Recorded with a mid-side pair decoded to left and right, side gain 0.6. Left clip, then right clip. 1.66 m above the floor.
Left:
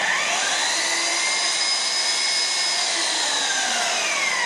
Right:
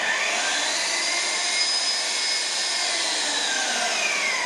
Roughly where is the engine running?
Ahead left.